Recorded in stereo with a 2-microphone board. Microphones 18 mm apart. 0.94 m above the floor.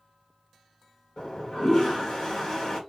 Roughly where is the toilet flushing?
Left.